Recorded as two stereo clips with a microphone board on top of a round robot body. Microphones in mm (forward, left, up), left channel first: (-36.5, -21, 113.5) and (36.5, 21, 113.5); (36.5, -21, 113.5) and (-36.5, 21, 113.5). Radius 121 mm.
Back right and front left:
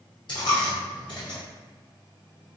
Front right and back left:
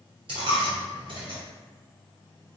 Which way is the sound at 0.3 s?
175° left.